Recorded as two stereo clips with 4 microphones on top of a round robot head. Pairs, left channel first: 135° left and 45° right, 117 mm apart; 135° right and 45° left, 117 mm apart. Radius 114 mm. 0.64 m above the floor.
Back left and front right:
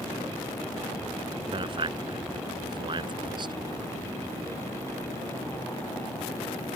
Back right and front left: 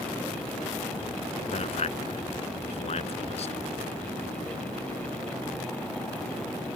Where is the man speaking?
95° right; by 3.5 s 100° right.